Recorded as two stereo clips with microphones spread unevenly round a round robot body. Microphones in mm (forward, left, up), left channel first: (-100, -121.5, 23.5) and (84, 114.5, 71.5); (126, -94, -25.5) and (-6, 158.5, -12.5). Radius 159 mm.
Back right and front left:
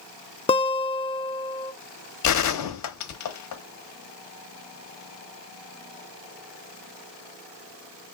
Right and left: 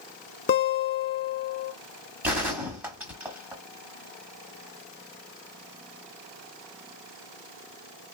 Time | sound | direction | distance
0.5 | a guitar | 85° right | 0.6 m
2.2 | a gunshot | 155° right | 1.2 m